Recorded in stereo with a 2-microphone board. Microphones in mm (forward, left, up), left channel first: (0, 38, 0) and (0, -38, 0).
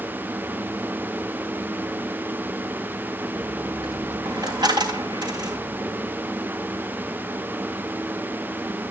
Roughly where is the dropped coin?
Right.